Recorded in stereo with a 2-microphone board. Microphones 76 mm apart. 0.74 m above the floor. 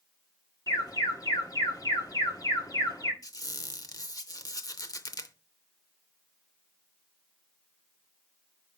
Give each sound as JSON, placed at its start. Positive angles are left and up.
{"t": 0.7, "sound": "an alarm", "side_deg": 55, "distance_m": 1.6}
{"t": 3.2, "sound": "a squeak", "side_deg": 50, "distance_m": 0.7}